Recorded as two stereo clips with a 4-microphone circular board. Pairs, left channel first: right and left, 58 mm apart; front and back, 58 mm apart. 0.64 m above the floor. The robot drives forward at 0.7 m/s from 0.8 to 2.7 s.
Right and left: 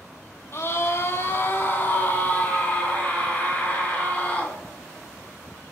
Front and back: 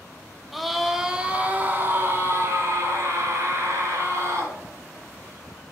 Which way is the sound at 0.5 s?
95° right.